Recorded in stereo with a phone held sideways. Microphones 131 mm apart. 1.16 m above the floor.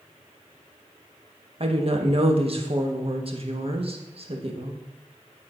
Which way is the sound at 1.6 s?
50° right (ahead or behind).